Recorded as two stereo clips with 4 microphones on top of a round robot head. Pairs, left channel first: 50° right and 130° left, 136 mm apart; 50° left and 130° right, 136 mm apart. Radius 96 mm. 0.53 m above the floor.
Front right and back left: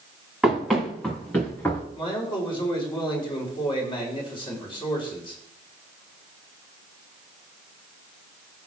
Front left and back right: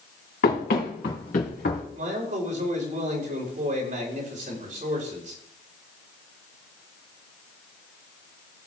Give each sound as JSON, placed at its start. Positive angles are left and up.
{"t": 0.4, "sound": "running footsteps", "azimuth_deg": 40, "distance_m": 3.5}
{"t": 1.9, "sound": "a man speaking", "azimuth_deg": -105, "distance_m": 3.5}